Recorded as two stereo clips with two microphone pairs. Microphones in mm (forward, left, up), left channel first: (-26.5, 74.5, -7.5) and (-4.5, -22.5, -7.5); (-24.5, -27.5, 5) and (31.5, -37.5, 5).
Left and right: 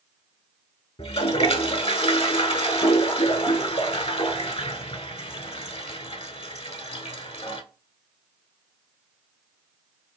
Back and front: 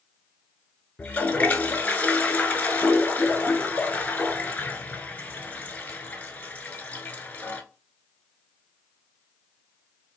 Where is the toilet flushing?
110° left, 0.5 m.